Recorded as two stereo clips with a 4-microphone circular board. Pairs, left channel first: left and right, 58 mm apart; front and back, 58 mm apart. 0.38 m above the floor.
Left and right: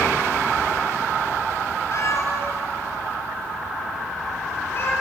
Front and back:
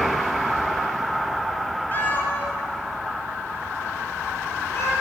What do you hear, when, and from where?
1.9 s a cat meowing: 55° left, 1.8 m; by 4.9 s 40° left, 3.5 m